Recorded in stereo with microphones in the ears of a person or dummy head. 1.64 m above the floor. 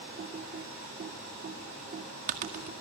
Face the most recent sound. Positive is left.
turn(degrees=-50)  # may be behind; listen again after turning